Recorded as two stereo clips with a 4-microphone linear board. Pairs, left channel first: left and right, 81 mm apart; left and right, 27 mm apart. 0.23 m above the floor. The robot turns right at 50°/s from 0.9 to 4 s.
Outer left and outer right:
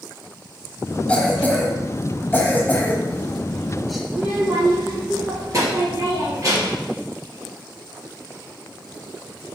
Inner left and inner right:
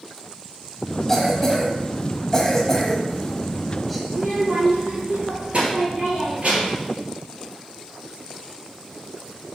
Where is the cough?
15° left (ahead or behind), 1.1 m; by 4.0 s centre (ahead or behind), 1.1 m.